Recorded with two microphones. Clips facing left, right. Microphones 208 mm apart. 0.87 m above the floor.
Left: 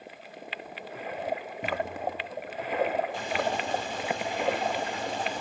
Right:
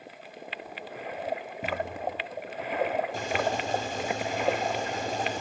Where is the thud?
10° right (ahead or behind), 3 m.